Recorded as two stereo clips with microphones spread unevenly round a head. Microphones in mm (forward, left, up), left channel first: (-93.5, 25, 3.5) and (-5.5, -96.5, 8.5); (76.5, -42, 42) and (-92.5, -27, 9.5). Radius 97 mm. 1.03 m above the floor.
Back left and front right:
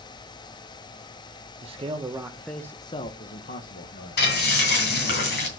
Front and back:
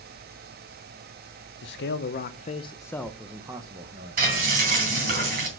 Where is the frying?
125° left, 3 m.